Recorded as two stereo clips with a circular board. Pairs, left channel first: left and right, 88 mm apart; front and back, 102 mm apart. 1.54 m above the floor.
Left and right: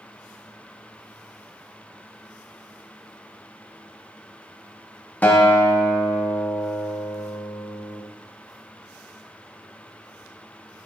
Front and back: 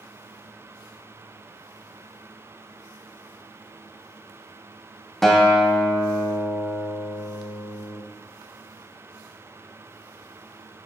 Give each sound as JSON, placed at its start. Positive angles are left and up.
{"t": 5.2, "sound": "a guitar", "azimuth_deg": 85, "distance_m": 1.0}